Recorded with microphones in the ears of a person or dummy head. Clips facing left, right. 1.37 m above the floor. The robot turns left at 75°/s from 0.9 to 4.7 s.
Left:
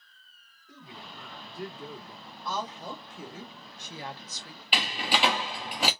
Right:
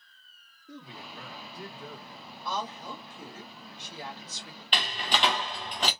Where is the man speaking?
115° right, 1.7 m; by 2.4 s 135° left, 1.7 m.